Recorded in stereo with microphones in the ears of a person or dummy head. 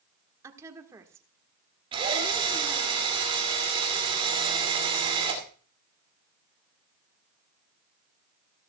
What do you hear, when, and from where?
0.4 s a woman speaking: 20° right (ahead or behind), 1.6 m
1.9 s a drill: 25° right (ahead or behind), 2.5 m